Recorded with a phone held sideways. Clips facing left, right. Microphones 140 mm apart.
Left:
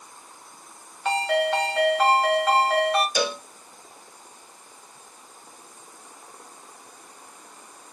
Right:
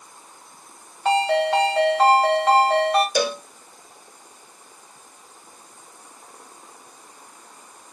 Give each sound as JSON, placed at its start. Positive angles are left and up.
{"t": 1.1, "sound": "a ringtone", "side_deg": -35, "distance_m": 1.6}
{"t": 3.1, "sound": "a cowbell", "side_deg": -45, "distance_m": 0.5}